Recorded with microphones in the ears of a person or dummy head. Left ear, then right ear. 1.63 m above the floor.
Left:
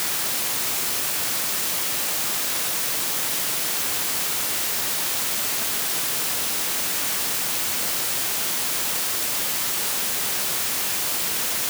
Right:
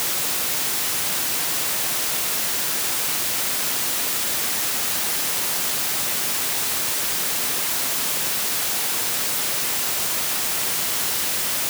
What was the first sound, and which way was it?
Only background noise.